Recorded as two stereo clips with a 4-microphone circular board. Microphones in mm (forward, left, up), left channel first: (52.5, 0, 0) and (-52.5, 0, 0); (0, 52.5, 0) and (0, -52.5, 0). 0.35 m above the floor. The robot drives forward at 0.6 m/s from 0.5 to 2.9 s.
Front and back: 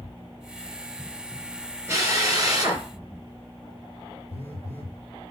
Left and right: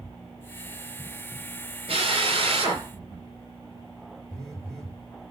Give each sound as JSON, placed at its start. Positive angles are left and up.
{"t": 1.9, "sound": "a drill", "azimuth_deg": -115, "distance_m": 3.5}
{"t": 4.3, "sound": "a phone buzzing", "azimuth_deg": 175, "distance_m": 4.5}